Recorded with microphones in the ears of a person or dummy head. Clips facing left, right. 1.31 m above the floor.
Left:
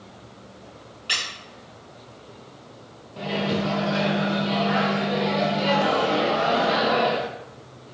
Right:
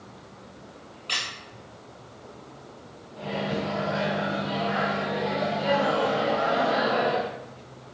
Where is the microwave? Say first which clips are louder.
Left 4 dB; 70° left (ahead or behind), 0.5 m.